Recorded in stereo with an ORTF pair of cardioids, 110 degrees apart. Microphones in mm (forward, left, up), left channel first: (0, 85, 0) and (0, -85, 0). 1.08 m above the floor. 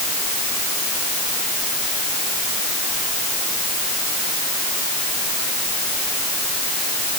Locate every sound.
Only background noise.